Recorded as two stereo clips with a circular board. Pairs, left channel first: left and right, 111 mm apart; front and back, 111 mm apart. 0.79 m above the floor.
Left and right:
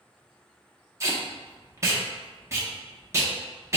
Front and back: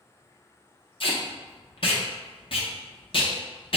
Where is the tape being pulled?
30° right, 0.7 m.